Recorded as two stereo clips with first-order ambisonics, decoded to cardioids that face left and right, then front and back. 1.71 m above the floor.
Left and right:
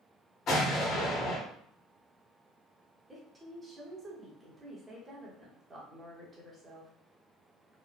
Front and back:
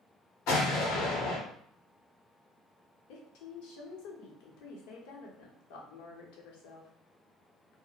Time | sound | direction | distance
0.5 | an explosion | 35° left | 1.0 m
3.1 | a woman speaking | 15° right | 0.9 m